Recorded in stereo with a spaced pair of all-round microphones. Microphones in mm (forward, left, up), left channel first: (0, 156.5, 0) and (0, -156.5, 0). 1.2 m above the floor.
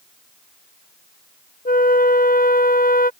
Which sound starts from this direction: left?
A flute, at 1.6 s.